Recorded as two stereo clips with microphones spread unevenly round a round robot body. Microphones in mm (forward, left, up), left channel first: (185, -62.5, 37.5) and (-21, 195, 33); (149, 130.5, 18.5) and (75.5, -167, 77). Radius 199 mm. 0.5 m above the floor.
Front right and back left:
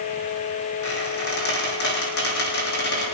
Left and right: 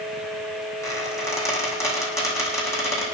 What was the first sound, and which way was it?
A squeak, 5° right.